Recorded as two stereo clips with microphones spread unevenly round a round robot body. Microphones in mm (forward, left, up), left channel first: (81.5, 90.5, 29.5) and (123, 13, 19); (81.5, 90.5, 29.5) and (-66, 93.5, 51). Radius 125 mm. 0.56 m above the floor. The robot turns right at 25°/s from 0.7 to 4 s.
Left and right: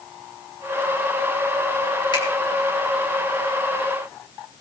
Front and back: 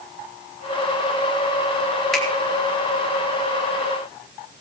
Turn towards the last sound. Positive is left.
turn(degrees=130)